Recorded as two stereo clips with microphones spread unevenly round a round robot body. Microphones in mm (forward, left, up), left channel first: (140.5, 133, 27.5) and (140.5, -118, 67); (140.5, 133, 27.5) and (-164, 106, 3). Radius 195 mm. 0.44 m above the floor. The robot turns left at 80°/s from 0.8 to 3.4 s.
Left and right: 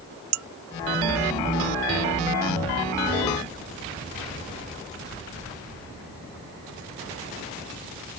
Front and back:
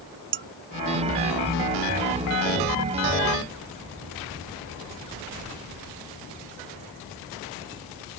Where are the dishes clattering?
120° right.